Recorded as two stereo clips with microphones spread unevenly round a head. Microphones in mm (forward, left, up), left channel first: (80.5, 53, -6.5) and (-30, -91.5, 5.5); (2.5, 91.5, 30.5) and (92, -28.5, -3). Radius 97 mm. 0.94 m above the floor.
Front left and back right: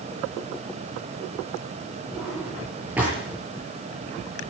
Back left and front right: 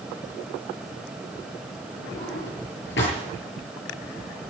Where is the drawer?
150° left, 7.5 m.